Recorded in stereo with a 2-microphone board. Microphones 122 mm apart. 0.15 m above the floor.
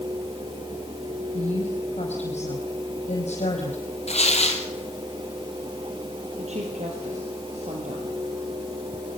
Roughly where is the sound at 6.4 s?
Right.